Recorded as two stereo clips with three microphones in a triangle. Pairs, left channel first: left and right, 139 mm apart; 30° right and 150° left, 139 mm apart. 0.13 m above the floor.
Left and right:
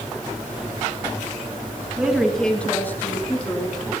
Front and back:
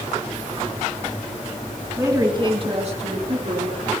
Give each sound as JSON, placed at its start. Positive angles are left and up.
{"t": 2.0, "sound": "a woman speaking", "azimuth_deg": -160, "distance_m": 1.7}